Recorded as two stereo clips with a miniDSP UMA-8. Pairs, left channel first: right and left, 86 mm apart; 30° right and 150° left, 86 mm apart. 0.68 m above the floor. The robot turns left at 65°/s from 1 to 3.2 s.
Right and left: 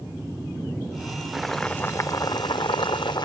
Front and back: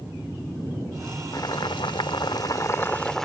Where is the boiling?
5° left; by 3.2 s 115° right.